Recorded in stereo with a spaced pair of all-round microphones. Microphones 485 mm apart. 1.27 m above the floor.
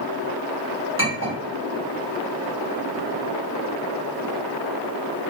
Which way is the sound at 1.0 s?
25° right (ahead or behind).